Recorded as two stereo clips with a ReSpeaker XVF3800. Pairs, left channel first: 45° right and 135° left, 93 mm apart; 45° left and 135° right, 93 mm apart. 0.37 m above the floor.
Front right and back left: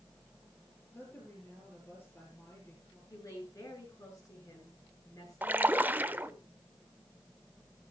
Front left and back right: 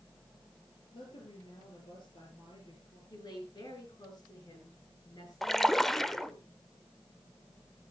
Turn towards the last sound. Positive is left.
turn(degrees=125)